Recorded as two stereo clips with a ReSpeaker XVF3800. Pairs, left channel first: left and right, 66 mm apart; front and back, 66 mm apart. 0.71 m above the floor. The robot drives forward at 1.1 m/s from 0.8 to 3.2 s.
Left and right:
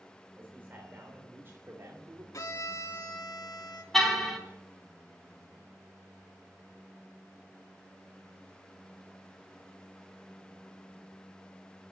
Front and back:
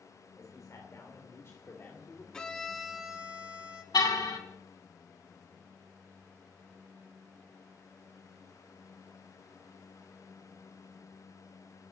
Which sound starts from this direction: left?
A violin, at 2.3 s.